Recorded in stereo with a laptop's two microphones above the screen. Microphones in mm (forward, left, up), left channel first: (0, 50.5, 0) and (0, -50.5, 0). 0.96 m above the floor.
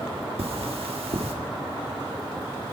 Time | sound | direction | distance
0.4 | cutlery clinking | 70° right (ahead or behind) | 1.1 m